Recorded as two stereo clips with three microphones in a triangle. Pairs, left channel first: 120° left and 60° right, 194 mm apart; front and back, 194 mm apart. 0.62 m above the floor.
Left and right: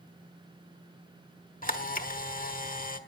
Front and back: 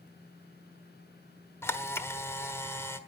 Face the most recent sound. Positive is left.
turn(degrees=75)